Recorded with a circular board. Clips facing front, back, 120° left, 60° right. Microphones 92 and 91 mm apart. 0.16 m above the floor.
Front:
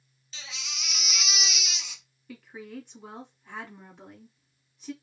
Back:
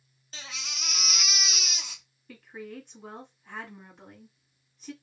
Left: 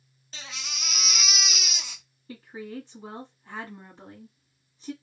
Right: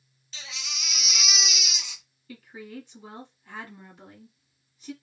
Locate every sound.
0.3 s a baby crying: 150° left, 0.9 m
2.3 s a woman speaking: 85° left, 1.5 m